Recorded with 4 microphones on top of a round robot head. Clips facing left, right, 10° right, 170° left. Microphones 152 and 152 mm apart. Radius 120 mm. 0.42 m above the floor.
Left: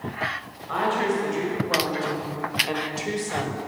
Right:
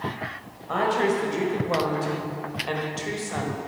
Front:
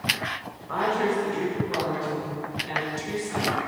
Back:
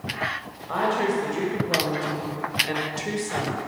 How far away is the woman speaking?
About 1.9 m.